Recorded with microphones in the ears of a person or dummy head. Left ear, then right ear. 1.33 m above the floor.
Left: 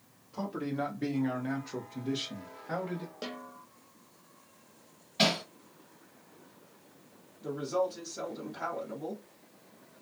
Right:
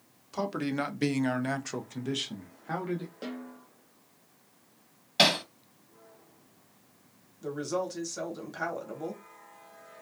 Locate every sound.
0.3 s a man speaking: 50° right (ahead or behind), 0.8 m; by 3.1 s 15° right (ahead or behind), 1.1 m
3.2 s a snare drum: 20° left (ahead or behind), 0.6 m
5.2 s hammering: 35° right (ahead or behind), 1.2 m
7.4 s a woman speaking: 55° right (ahead or behind), 1.2 m